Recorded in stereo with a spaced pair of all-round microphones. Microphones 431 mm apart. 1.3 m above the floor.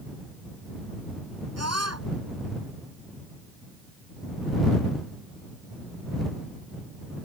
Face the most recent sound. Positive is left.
turn(degrees=-35)  # may be behind; listen again after turning